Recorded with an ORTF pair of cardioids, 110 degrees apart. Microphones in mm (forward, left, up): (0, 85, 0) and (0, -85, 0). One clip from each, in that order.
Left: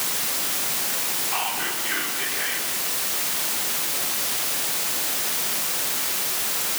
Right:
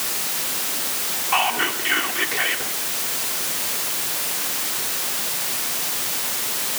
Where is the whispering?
50° right, 3 m.